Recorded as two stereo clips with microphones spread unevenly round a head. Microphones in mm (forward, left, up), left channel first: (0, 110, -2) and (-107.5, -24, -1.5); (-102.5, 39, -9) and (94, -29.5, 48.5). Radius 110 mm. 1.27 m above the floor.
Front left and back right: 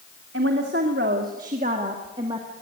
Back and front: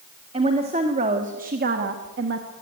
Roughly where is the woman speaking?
Right.